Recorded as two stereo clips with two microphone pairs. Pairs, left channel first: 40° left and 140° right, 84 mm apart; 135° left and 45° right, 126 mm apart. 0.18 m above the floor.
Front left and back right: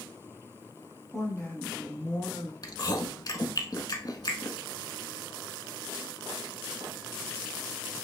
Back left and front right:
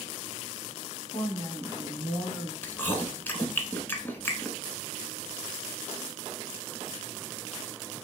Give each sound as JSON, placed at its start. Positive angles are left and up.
{"t": 1.1, "sound": "a woman speaking", "azimuth_deg": 130, "distance_m": 1.2}
{"t": 2.6, "sound": "chewing", "azimuth_deg": 60, "distance_m": 0.8}